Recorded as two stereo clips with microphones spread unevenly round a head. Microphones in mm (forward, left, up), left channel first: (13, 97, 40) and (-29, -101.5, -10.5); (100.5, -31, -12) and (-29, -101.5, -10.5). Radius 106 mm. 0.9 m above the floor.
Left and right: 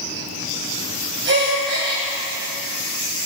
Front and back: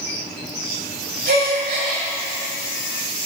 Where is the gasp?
140° right, 1.6 m.